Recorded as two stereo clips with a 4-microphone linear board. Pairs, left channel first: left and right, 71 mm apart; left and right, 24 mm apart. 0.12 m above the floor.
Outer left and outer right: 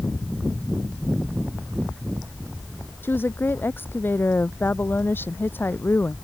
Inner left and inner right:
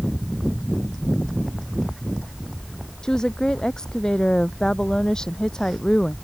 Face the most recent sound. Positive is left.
turn(degrees=30)  # may be behind; listen again after turning